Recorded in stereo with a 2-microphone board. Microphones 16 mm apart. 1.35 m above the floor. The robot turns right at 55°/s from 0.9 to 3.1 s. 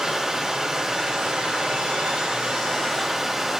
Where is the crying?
I don't hear crying.